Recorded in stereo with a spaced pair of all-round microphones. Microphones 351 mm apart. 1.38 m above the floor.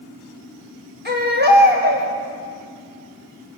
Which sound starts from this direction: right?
A baby crying, at 1.1 s.